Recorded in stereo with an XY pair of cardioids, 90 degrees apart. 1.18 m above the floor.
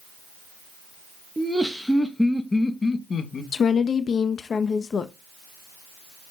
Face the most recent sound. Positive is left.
turn(degrees=55)